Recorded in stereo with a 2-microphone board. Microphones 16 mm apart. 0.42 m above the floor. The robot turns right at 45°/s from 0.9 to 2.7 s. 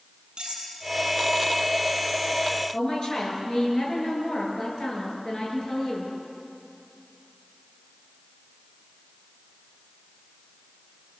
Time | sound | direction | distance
0.4 | cutlery clinking | 70° right (ahead or behind) | 7 m
2.7 | a woman speaking | 40° left (ahead or behind) | 8.5 m